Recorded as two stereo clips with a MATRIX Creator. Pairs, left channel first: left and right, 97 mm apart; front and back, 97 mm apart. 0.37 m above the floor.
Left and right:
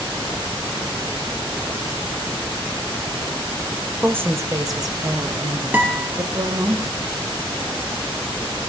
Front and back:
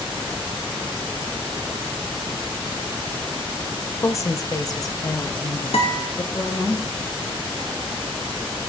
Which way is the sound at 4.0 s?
25° right.